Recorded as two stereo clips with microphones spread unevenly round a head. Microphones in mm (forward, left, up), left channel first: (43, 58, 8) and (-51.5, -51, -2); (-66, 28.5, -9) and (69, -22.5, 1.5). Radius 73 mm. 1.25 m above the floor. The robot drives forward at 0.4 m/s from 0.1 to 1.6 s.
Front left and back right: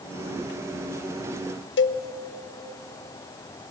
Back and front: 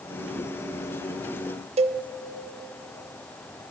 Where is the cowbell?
30° left, 0.6 m.